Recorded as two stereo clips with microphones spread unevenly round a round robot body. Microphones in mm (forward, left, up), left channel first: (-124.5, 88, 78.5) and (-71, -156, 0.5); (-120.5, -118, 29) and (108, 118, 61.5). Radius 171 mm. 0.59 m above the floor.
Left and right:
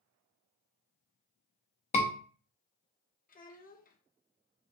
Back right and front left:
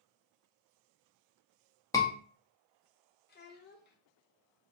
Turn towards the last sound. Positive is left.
turn(degrees=170)